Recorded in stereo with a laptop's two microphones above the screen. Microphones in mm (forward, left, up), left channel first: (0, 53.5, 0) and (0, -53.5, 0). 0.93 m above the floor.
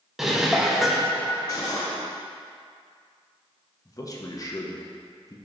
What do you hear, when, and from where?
0.2 s dishes clattering: 5° right (ahead or behind), 0.6 m
1.5 s cutlery clinking: 35° left (ahead or behind), 1.3 m
3.9 s a man speaking: 35° left (ahead or behind), 0.8 m